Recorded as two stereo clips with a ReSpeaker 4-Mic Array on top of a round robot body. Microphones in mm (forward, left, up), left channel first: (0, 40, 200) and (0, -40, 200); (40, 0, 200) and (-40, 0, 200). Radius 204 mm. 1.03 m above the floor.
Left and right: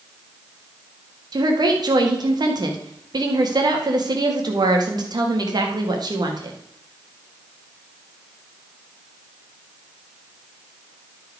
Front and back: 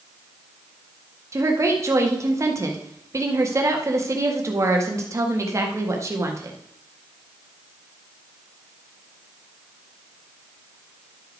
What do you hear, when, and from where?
1.3 s a woman speaking: 125° right, 1.8 m